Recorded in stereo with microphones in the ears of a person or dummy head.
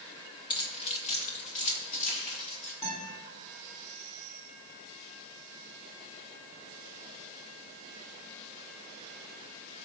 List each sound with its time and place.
0.5 s keys jangling: 25° left (ahead or behind), 1.3 m; by 2.7 s 40° left (ahead or behind), 4.5 m
2.8 s a guitar: 30° left (ahead or behind), 3.5 m